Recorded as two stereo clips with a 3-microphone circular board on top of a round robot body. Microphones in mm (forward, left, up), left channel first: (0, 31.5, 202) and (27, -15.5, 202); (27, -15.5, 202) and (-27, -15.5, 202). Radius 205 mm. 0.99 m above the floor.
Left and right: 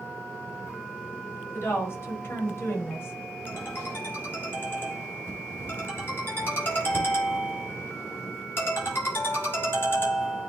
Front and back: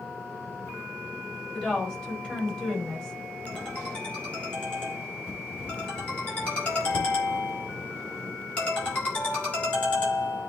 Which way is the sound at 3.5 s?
70° left.